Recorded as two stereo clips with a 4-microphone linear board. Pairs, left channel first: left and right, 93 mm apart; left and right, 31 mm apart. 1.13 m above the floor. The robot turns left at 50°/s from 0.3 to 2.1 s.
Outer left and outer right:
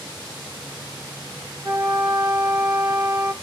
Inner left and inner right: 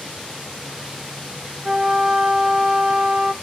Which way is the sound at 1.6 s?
Centre (ahead or behind).